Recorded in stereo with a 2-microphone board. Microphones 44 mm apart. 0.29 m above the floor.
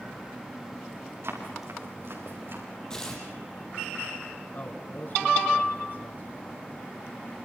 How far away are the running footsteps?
About 8 m.